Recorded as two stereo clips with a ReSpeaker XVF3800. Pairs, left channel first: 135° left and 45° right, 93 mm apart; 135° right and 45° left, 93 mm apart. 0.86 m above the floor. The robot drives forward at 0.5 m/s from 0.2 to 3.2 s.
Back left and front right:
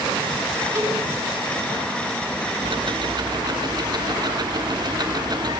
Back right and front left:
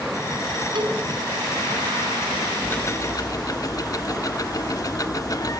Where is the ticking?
65° right, 0.8 m; by 5.6 s 85° right, 0.7 m.